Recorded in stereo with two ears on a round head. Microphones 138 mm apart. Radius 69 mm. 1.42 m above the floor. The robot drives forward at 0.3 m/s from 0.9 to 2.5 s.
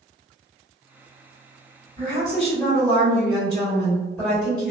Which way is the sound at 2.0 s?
10° left (ahead or behind).